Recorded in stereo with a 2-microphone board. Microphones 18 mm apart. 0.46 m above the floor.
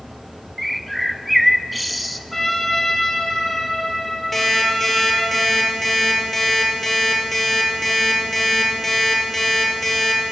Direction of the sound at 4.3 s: 5° left (ahead or behind).